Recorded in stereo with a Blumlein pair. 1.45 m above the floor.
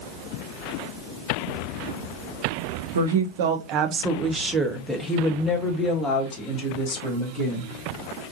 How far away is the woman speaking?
About 0.8 m.